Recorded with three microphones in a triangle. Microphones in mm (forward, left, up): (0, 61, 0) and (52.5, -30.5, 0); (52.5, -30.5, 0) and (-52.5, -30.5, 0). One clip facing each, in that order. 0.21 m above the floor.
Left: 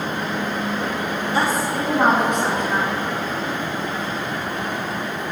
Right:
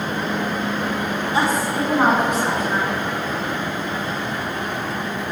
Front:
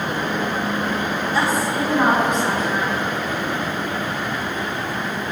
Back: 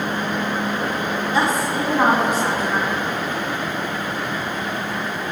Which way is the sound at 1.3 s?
115° right.